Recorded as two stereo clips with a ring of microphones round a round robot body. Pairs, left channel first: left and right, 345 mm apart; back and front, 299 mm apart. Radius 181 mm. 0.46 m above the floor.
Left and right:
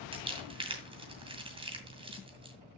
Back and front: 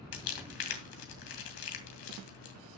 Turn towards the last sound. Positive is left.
turn(degrees=-165)